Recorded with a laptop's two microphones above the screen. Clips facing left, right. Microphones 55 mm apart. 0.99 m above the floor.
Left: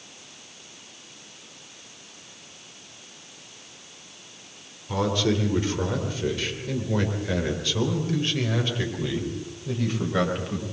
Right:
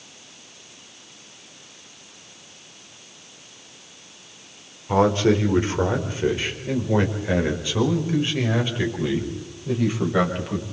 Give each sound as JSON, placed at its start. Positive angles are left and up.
{"t": 4.9, "sound": "a man speaking", "side_deg": -35, "distance_m": 4.0}